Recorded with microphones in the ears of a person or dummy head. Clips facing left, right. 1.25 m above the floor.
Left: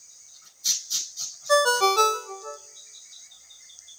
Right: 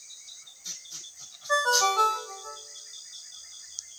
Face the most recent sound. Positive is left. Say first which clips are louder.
# left 7 dB
turn(degrees=45)  # may be behind; listen again after turning